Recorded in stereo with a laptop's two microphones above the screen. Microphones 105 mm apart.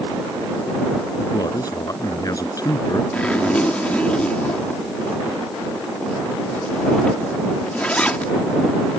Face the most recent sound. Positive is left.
turn(degrees=10)  # may be behind; listen again after turning